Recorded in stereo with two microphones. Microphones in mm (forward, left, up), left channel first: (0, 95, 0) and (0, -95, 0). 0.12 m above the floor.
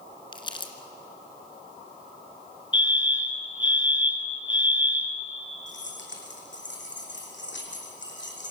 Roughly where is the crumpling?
Left.